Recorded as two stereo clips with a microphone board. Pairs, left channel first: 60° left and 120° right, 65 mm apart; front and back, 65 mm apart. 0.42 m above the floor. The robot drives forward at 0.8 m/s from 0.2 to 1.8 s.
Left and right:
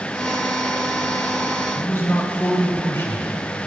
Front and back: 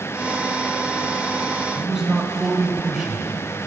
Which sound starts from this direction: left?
A man speaking, at 1.7 s.